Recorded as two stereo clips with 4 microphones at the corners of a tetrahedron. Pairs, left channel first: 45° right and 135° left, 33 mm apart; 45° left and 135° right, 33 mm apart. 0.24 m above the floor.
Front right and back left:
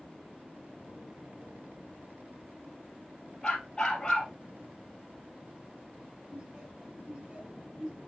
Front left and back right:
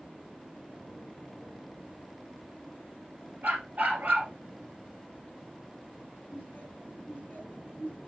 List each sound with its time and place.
3.4 s a dog barking: 115° right, 2.5 m
6.3 s laughter: 80° left, 3.5 m